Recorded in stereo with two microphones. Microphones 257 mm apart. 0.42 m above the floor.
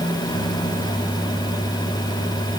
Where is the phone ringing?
I don't hear a phone ringing.